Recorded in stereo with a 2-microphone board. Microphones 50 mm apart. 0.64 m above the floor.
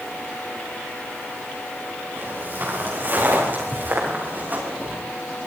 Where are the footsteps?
45° right (ahead or behind), 7.5 m; by 5.0 s 35° right (ahead or behind), 9 m.